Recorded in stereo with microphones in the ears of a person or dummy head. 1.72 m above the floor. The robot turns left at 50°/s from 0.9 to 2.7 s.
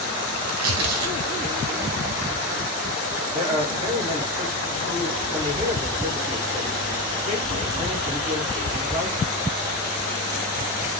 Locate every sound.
0.4 s tearing paper: 85° right, 0.8 m; by 2.1 s 25° right (ahead or behind), 0.8 m
3.3 s a man speaking: 30° right (ahead or behind), 1.0 m